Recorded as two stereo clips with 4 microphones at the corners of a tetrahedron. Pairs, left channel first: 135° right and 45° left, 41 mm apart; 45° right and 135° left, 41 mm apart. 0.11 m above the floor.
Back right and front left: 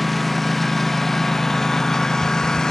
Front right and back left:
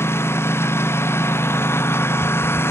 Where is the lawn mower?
50° right; by 2.7 s 60° right.